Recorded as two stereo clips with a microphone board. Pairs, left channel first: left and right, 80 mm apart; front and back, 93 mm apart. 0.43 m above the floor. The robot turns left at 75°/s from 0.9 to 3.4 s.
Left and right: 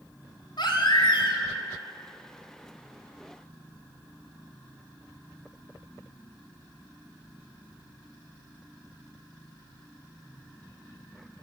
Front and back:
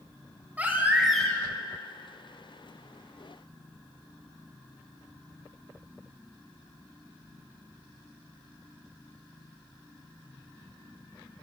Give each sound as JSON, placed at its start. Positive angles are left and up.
{"t": 0.6, "sound": "a baby crying", "azimuth_deg": 105, "distance_m": 3.0}